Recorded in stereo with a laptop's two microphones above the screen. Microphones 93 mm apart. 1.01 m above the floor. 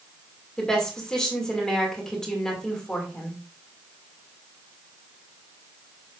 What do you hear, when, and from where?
0.6 s a woman speaking: 5° left (ahead or behind), 2.5 m